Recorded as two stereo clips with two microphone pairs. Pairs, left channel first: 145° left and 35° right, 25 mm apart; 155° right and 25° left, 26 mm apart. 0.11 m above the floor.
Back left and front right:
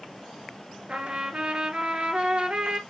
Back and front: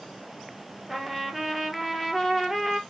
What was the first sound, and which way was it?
A trumpet, 60° right.